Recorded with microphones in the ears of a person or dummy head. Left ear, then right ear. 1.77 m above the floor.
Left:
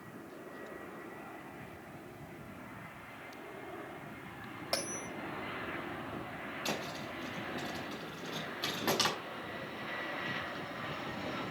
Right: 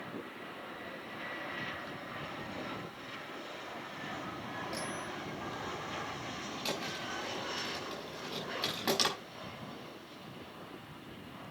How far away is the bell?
About 1.5 m.